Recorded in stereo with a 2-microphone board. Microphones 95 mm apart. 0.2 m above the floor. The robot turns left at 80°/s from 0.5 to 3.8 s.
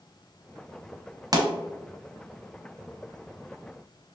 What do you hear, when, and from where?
1.3 s a pop: 40° right (ahead or behind), 0.6 m; by 1.5 s 30° right (ahead or behind), 0.6 m